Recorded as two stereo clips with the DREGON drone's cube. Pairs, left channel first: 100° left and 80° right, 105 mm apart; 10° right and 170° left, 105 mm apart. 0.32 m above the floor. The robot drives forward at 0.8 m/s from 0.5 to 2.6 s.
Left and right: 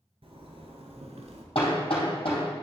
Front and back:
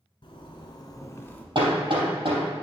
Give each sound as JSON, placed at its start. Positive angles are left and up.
{"t": 0.2, "sound": "a zipper", "azimuth_deg": -50, "distance_m": 1.3}
{"t": 1.6, "sound": "hammering", "azimuth_deg": 130, "distance_m": 3.5}